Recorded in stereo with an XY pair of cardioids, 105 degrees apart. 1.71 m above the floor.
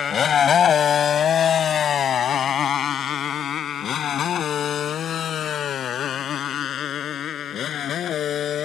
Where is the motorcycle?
50° left; by 8.7 s 65° left.